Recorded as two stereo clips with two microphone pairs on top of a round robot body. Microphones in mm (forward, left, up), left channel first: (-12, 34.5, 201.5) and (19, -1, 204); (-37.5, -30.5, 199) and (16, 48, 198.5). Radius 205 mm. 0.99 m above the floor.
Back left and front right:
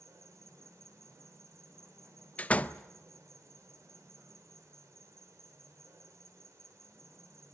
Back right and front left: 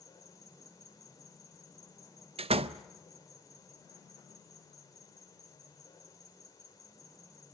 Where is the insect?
70° right, 4 m.